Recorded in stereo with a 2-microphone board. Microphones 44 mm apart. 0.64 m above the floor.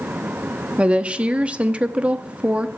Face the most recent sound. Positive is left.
turn(degrees=-30)  # may be behind; listen again after turning